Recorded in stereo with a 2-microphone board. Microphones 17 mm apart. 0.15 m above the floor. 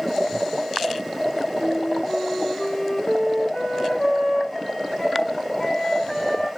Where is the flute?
65° left (ahead or behind), 6.5 m.